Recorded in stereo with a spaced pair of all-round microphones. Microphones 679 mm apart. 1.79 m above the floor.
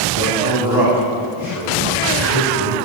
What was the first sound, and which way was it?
A man speaking, 45° left (ahead or behind).